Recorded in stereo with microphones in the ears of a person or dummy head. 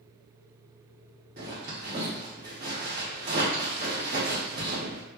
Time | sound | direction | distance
1.4 | a zipper | 40° right (ahead or behind) | 0.9 m